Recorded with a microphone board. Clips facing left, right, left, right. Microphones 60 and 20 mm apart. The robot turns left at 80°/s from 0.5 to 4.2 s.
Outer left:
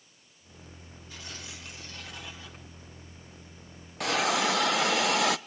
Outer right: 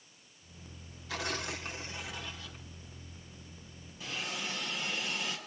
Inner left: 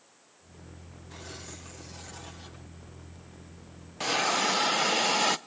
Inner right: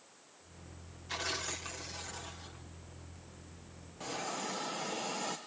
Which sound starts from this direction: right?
Tearing paper, at 1.1 s.